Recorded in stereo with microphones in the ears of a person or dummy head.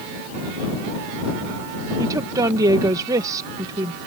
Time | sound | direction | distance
2.0 | a woman speaking | 20° right (ahead or behind) | ?